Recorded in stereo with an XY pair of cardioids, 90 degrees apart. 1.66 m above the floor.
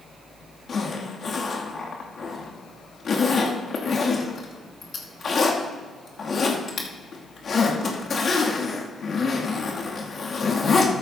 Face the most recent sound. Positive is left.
turn(degrees=50)